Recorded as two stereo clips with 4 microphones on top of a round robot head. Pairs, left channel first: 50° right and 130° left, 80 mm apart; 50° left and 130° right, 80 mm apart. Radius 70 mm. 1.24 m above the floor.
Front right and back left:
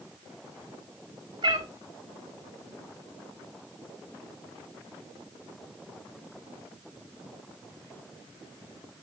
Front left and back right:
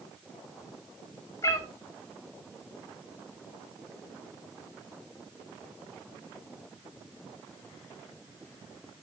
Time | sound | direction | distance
1.4 | a cat meowing | 95° left | 0.7 m